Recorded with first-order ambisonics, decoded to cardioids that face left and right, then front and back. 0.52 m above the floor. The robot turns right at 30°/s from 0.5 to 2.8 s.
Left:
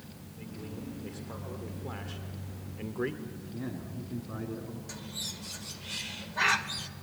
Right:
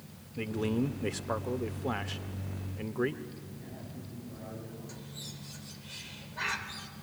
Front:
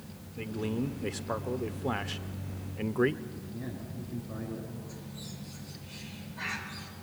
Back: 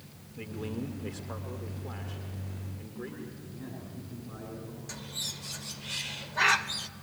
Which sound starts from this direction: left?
A man speaking, at 3.2 s.